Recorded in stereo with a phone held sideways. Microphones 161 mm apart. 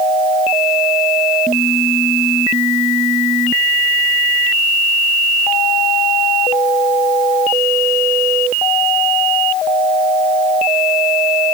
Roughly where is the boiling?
No boiling in this recording.